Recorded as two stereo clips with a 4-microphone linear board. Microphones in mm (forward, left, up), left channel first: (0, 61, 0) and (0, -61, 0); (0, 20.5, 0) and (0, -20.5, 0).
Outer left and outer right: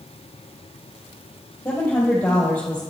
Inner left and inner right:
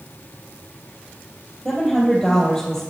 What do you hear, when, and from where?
1.6 s a woman speaking: 10° left (ahead or behind), 3 m